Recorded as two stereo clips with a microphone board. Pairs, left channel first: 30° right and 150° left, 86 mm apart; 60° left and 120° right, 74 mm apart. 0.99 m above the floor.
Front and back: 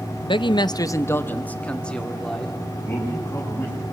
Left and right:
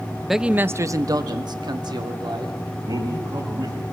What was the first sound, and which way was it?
A man speaking, 25° right.